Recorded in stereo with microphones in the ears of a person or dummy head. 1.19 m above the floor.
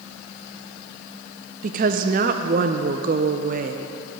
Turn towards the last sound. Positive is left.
turn(degrees=-40)  # may be behind; listen again after turning